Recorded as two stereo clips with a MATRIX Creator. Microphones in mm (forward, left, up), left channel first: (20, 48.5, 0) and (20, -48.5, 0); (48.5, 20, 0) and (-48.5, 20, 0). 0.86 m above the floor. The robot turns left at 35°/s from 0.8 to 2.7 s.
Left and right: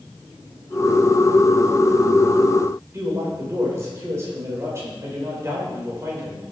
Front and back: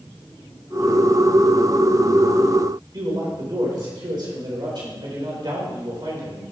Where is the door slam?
No door slam in this recording.